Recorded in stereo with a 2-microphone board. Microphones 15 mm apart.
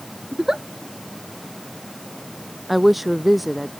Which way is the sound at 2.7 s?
10° right (ahead or behind).